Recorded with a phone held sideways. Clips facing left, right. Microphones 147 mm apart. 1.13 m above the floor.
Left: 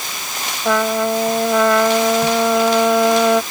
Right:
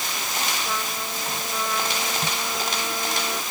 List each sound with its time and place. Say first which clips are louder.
0.7 s a trumpet: left 14 dB; 85° left